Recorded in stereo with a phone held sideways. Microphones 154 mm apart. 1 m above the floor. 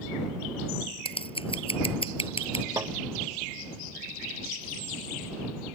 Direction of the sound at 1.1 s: 35° left (ahead or behind).